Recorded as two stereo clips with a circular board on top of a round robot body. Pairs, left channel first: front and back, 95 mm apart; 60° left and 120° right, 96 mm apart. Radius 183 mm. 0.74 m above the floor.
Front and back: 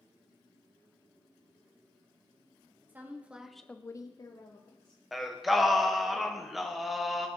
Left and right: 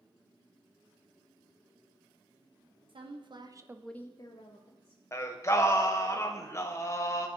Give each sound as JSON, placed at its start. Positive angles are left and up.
{"t": 2.9, "sound": "a woman speaking", "azimuth_deg": -110, "distance_m": 1.6}
{"t": 5.1, "sound": "singing", "azimuth_deg": 90, "distance_m": 1.2}